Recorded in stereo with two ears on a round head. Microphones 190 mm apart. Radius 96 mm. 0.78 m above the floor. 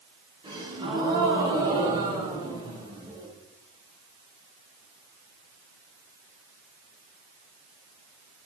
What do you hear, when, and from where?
0.4 s a gasp: 25° right (ahead or behind), 8.5 m